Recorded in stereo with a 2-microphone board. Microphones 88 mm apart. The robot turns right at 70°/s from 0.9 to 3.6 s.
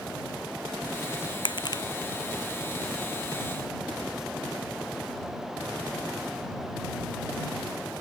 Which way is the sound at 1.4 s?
70° left (ahead or behind).